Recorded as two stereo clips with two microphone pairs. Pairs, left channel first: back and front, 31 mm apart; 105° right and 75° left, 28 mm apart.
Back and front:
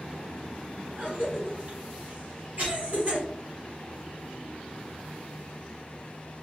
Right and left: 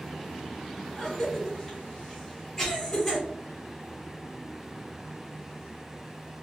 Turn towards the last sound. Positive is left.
turn(degrees=-25)